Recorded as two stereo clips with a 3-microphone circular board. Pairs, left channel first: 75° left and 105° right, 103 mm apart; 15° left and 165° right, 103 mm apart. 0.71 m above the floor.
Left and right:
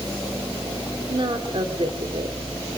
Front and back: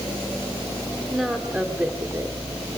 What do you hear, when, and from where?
1.1 s a woman speaking: 75° right, 2 m; by 2.4 s 105° right, 1.9 m